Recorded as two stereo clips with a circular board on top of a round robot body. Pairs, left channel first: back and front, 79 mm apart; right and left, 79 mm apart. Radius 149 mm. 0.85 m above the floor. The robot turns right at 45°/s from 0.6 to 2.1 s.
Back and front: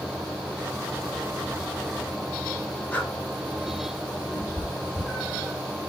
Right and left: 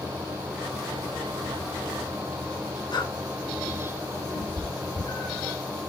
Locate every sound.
2.9 s breathing: 105° right, 2.5 m
4.3 s a cat meowing: 75° right, 5.5 m